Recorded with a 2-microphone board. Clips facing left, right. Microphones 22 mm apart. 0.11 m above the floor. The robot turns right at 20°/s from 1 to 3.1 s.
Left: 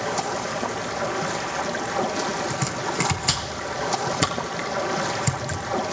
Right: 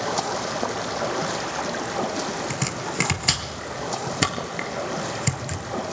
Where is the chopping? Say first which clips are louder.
Left 2 dB; 25° right (ahead or behind), 2.5 m; by 5.6 s 15° right (ahead or behind), 2.5 m.